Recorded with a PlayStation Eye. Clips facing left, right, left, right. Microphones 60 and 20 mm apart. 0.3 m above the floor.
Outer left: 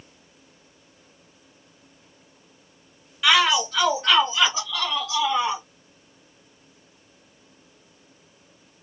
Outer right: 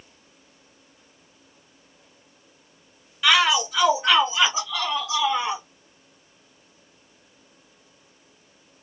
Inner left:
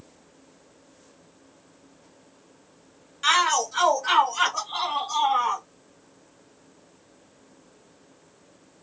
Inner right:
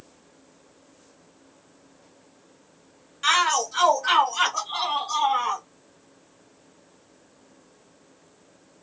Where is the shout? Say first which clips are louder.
Even, even; centre (ahead or behind), 1.5 m; by 5.6 s 20° right (ahead or behind), 2.0 m.